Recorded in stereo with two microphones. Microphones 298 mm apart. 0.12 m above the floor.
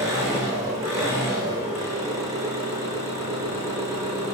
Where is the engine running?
10° right (ahead or behind), 4 m.